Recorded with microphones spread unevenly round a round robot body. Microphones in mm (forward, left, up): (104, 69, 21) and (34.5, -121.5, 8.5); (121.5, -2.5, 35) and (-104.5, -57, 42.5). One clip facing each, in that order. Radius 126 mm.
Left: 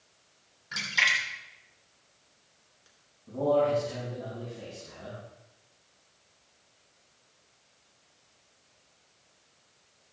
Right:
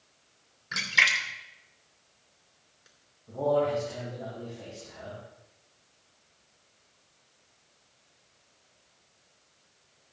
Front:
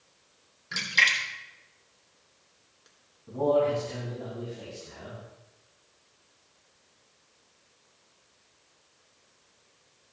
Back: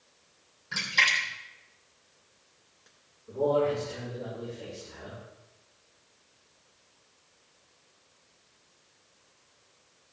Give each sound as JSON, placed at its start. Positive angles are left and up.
{"t": 0.7, "sound": "a splash", "azimuth_deg": -50, "distance_m": 3.0}
{"t": 3.3, "sound": "a man speaking", "azimuth_deg": 25, "distance_m": 7.5}